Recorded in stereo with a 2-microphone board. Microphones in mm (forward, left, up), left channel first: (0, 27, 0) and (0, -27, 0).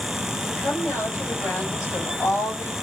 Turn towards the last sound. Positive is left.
turn(degrees=85)